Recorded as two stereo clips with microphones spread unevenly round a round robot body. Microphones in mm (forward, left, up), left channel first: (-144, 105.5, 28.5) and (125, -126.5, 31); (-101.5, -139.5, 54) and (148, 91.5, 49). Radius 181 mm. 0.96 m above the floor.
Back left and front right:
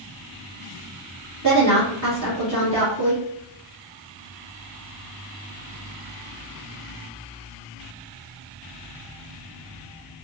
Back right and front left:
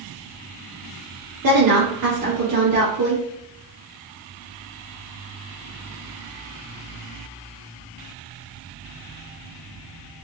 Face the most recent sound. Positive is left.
turn(degrees=15)